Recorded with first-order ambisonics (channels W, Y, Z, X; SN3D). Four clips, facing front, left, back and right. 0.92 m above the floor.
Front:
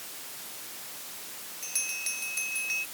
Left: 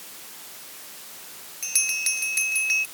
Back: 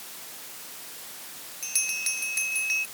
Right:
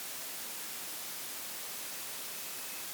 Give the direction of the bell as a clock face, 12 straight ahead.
9 o'clock.